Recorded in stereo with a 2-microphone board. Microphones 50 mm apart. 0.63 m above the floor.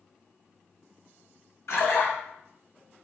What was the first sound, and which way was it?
A splash, 75° left (ahead or behind).